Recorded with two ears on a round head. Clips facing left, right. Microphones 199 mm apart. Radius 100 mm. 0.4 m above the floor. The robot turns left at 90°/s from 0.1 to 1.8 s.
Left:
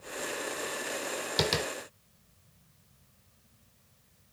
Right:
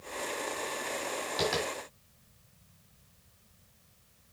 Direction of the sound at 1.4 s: 60° left (ahead or behind).